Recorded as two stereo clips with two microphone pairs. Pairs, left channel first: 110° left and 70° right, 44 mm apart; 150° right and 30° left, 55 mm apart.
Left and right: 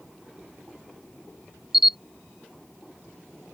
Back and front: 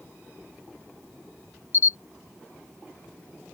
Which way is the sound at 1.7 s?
155° right.